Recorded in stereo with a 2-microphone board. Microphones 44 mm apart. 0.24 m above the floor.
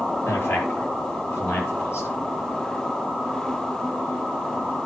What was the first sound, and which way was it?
A man speaking, 55° left (ahead or behind).